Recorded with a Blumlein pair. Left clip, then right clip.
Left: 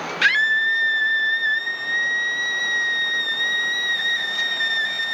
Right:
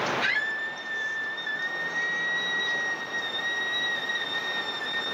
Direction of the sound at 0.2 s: 40° left.